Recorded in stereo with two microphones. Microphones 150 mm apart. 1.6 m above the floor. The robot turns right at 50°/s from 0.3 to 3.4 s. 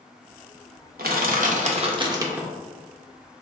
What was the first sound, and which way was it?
Crushing, 85° right.